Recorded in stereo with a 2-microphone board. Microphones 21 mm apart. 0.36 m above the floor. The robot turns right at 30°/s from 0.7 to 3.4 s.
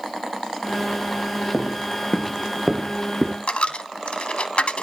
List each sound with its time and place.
1.5 s footsteps: 70° left (ahead or behind), 1.7 m; by 3.4 s 25° right (ahead or behind), 2 m
3.5 s a dropped coin: 75° left (ahead or behind), 0.8 m